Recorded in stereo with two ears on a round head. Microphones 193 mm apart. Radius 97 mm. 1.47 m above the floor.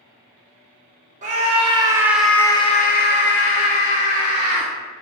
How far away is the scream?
About 0.9 m.